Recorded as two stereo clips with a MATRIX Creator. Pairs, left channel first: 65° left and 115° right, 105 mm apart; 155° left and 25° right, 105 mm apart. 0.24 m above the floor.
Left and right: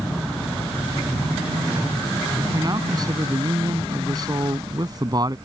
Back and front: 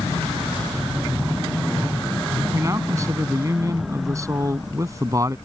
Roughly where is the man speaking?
Right.